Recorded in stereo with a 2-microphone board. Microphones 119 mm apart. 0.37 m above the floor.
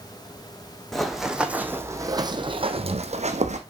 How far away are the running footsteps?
About 1.2 m.